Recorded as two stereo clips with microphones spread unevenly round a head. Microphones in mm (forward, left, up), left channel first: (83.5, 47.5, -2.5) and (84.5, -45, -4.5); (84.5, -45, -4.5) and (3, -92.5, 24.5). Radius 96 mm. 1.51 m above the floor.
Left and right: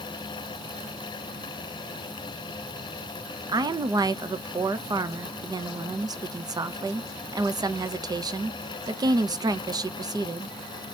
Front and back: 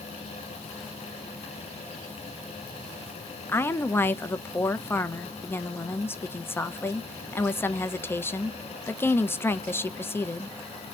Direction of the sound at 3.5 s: 45° right.